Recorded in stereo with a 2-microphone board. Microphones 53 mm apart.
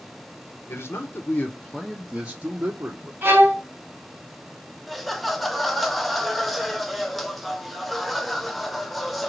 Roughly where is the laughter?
Centre.